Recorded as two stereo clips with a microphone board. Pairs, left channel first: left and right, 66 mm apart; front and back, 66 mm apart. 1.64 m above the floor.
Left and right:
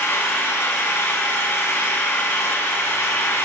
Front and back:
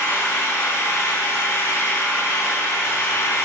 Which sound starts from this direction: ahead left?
An engine running, at 0.0 s.